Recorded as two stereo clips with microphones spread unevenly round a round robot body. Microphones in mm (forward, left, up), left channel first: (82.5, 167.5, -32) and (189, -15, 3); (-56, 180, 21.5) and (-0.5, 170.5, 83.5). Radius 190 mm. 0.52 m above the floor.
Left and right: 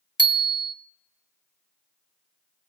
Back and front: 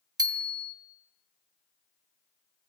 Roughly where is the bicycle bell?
Ahead.